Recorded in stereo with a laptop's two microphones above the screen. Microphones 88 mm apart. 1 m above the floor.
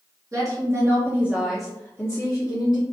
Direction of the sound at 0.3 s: 40° right (ahead or behind).